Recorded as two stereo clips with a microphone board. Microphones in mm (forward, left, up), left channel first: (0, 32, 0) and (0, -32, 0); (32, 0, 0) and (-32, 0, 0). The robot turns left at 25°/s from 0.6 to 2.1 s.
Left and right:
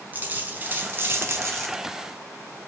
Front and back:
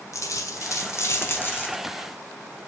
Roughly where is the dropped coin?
Ahead right.